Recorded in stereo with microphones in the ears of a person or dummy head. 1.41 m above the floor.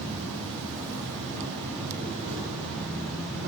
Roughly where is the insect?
Right.